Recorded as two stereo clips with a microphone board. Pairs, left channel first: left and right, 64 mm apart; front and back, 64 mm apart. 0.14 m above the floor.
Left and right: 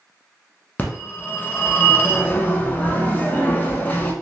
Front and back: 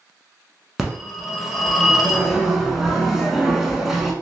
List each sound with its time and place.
0.8 s a phone ringing: 100° left, 0.7 m